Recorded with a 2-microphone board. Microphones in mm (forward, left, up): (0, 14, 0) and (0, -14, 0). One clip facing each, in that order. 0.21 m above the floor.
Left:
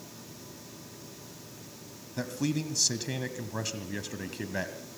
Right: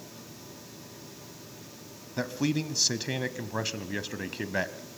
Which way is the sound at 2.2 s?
20° right (ahead or behind).